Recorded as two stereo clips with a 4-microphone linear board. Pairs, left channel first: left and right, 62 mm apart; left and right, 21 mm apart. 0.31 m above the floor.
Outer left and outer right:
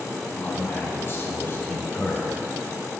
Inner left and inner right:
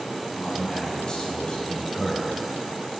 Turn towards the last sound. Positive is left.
turn(degrees=40)  # may be behind; listen again after turning